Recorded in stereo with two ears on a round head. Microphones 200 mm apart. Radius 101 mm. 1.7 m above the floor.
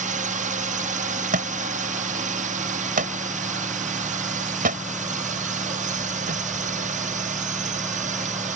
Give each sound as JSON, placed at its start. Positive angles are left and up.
{"t": 0.0, "sound": "a drone", "side_deg": -35}
{"t": 1.3, "sound": "a thud", "side_deg": -40}